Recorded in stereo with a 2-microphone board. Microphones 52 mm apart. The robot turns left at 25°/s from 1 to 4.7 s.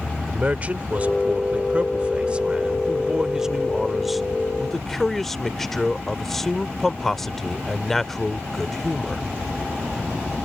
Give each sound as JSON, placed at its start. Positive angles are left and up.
{"t": 0.3, "sound": "a man speaking", "azimuth_deg": -100}